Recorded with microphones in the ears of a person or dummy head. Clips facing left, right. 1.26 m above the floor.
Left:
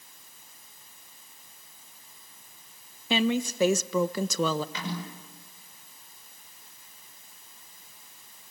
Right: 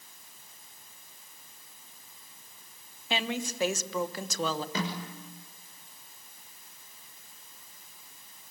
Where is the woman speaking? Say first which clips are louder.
Left 7 dB; 75° left (ahead or behind), 1.2 m.